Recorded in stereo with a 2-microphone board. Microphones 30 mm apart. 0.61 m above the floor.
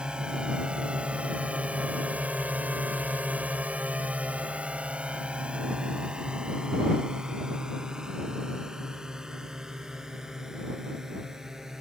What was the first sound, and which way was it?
A drone, 30° right (ahead or behind).